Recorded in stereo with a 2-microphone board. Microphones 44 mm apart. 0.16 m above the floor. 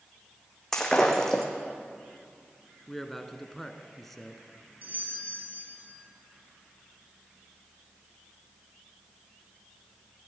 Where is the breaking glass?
10° left (ahead or behind), 3 m.